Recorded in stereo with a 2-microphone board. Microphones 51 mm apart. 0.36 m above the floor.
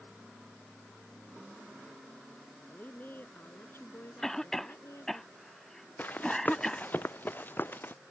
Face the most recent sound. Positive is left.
turn(degrees=45)  # may be behind; listen again after turning